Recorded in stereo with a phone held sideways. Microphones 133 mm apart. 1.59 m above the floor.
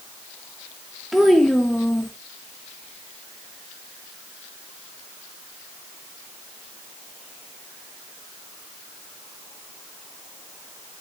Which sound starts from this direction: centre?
A child speaking, at 1.1 s.